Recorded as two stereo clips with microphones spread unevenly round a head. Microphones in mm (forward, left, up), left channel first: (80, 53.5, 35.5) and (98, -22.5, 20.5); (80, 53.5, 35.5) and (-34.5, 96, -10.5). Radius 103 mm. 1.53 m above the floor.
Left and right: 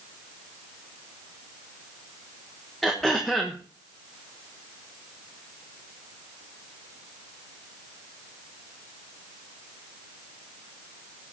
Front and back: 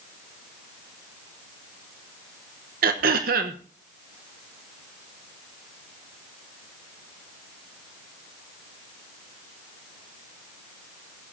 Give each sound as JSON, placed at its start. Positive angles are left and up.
{"t": 2.8, "sound": "throat clearing", "azimuth_deg": -175, "distance_m": 0.9}